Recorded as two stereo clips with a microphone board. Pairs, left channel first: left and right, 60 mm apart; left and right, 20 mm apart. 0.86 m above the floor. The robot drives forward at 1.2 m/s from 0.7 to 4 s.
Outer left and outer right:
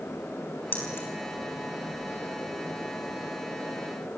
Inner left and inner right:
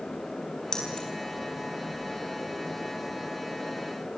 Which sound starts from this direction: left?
Keys jangling, at 0.7 s.